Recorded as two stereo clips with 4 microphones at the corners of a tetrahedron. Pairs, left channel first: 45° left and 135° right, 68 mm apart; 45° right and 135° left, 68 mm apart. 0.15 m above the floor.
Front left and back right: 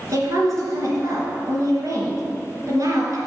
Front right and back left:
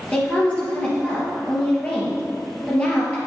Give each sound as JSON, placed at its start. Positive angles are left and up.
{"t": 0.1, "sound": "a woman speaking", "azimuth_deg": -110, "distance_m": 2.5}